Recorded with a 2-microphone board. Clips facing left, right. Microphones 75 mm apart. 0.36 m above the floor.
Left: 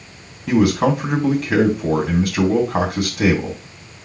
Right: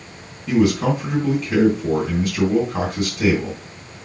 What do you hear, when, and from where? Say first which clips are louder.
0.5 s a man speaking: left 2 dB; 65° left (ahead or behind), 3 m